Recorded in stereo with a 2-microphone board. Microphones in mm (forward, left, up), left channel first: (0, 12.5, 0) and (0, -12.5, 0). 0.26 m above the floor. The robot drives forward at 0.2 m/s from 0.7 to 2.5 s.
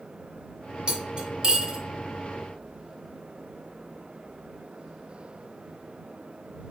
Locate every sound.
0.9 s cutlery clinking: 30° right (ahead or behind), 1.0 m; by 1.8 s 35° right (ahead or behind), 0.9 m